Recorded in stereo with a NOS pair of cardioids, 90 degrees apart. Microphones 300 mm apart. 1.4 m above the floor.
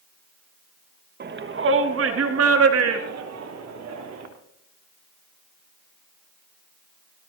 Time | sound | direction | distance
1.2 | a shout | 35° right | 1.6 m